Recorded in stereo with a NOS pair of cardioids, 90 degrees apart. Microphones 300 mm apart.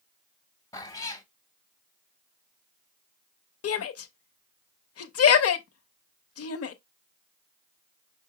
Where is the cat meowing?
10° left, 1.1 m.